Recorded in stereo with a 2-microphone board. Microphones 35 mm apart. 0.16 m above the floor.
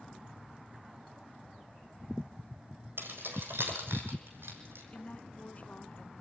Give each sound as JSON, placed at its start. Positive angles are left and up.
{"t": 3.0, "sound": "keys jangling", "side_deg": -75, "distance_m": 4.5}
{"t": 4.9, "sound": "a woman speaking", "side_deg": 40, "distance_m": 1.6}